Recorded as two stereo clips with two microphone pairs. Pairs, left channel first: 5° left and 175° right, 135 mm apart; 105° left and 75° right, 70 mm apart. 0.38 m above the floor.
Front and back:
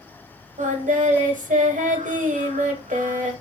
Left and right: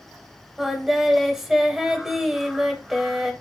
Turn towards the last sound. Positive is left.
turn(degrees=-160)